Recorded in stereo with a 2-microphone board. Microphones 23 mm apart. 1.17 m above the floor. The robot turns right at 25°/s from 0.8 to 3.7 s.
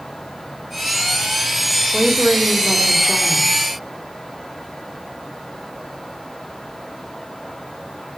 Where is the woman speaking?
35° right, 2 m; by 3.5 s 5° left, 2 m.